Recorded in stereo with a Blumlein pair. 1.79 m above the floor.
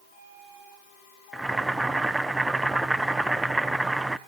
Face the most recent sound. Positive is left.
turn(degrees=-5)